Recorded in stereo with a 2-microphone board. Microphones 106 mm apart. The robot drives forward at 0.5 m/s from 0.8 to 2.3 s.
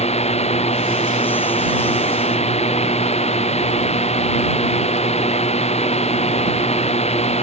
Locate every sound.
0.0 s a drone: 85° left